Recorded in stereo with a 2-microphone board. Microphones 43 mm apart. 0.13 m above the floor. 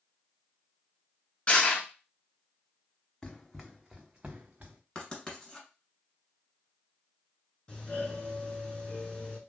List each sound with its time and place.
1.5 s crushing: 25° left (ahead or behind), 1.2 m
3.2 s running footsteps: 20° left (ahead or behind), 0.6 m; by 4.8 s 45° right (ahead or behind), 0.9 m
5.0 s writing: 15° left (ahead or behind), 1.5 m
7.7 s a doorbell: 20° left (ahead or behind), 1.8 m